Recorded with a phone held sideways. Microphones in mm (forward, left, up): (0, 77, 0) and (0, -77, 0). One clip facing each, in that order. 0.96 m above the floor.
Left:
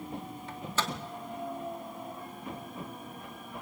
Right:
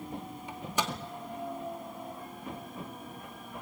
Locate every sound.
0.5 s a microwave: 15° right (ahead or behind), 1.8 m